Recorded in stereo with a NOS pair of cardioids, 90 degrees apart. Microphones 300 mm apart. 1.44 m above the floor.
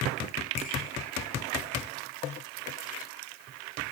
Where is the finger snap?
20° left, 1.5 m.